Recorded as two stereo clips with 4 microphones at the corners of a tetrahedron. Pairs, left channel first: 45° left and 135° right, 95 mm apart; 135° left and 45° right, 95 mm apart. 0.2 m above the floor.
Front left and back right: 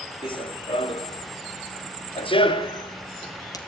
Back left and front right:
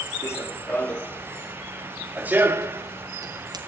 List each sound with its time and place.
0.2 s running footsteps: 75° left, 2.5 m; by 3.6 s straight ahead, 2.5 m